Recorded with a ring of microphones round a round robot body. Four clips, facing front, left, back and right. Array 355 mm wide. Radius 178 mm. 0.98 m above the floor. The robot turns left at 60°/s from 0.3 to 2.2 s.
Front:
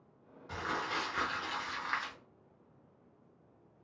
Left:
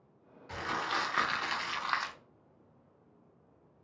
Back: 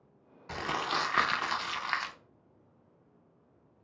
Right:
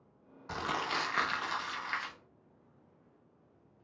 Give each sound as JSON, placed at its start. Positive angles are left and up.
{"t": 0.5, "sound": "crumpling", "azimuth_deg": -135, "distance_m": 0.5}